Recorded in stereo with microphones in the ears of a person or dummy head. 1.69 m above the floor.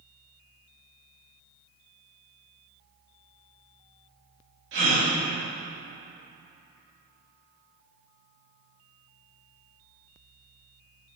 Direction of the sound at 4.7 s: 70° right (ahead or behind).